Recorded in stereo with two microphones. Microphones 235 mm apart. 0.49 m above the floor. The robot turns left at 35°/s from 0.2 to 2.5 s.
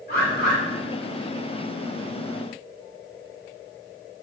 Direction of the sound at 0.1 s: 40° left (ahead or behind).